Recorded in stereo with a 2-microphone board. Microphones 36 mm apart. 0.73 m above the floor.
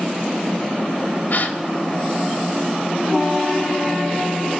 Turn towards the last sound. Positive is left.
turn(degrees=55)  # may be behind; listen again after turning